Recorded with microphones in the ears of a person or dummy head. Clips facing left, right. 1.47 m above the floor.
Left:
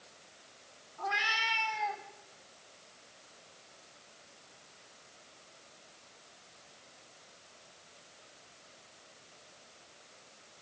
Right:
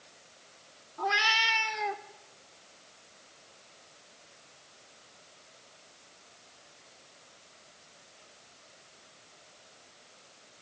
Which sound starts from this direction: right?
A cat meowing, at 1.0 s.